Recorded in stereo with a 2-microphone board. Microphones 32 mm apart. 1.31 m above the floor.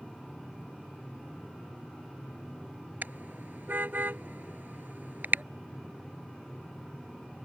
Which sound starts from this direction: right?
A car horn, at 3.0 s.